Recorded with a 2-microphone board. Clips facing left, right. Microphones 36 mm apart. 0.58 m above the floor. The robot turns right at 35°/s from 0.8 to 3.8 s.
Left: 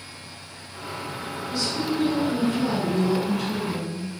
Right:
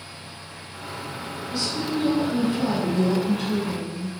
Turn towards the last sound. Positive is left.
turn(degrees=-80)